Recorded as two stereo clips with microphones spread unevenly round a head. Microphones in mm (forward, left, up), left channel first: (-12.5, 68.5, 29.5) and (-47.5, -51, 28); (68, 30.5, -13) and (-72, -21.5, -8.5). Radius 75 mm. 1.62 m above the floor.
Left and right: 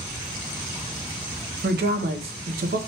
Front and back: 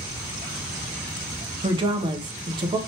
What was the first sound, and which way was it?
A woman speaking, 100° right.